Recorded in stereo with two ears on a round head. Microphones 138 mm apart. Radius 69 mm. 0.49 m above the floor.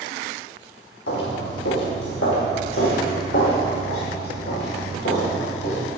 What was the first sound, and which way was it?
Footsteps, 85° left.